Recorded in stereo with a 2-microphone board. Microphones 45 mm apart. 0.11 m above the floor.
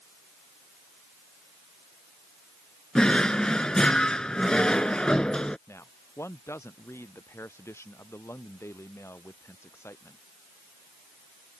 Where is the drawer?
20° left (ahead or behind).